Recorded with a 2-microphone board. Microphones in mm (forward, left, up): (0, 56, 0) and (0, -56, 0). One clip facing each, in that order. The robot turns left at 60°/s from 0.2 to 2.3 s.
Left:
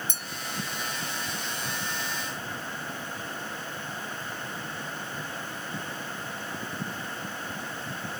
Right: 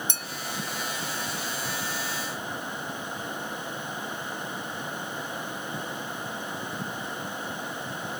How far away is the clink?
About 0.5 m.